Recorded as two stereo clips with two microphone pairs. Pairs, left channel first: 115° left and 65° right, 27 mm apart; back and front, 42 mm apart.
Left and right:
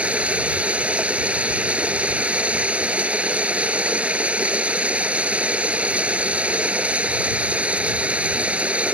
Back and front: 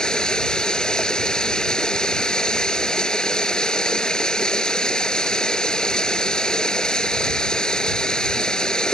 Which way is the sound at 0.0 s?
105° right.